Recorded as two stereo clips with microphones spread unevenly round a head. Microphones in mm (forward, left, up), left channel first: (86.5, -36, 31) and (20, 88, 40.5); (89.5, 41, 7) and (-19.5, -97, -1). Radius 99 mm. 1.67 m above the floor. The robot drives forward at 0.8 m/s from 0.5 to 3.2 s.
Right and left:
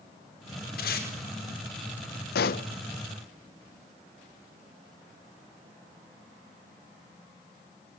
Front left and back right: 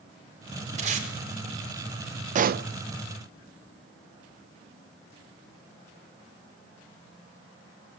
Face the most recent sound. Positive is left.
turn(degrees=-140)